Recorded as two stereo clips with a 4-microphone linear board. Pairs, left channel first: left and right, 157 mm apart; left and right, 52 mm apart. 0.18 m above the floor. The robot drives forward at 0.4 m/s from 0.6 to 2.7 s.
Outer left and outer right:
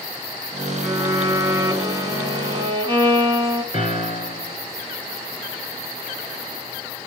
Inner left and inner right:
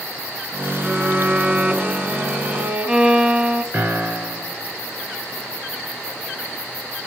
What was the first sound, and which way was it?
A violin, 20° right (ahead or behind).